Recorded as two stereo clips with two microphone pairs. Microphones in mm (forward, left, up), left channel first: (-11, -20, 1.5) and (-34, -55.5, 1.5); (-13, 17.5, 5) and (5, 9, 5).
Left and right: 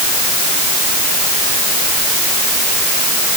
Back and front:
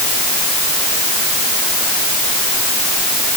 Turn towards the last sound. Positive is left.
No sound to turn to.